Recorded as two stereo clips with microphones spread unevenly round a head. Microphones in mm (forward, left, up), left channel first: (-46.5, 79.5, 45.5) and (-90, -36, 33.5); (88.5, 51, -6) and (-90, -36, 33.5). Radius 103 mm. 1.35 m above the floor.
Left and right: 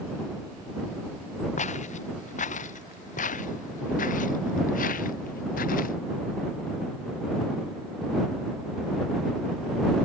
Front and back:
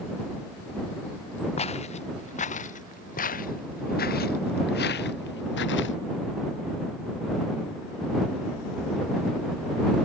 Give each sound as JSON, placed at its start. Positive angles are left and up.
{"t": 1.6, "sound": "footsteps", "azimuth_deg": 90}